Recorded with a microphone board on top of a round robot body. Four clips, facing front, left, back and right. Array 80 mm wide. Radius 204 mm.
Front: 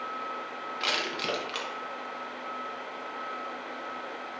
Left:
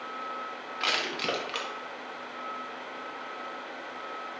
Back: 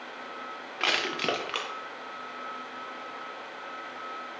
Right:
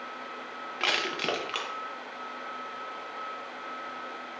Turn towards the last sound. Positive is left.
turn(degrees=-150)